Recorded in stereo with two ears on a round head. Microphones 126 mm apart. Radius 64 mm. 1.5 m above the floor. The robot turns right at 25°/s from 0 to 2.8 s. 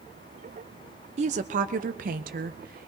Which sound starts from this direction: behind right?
A woman speaking, at 1.2 s.